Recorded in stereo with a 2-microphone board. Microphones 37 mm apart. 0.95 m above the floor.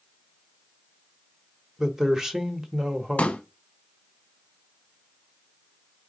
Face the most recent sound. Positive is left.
turn(degrees=35)  # may be behind; listen again after turning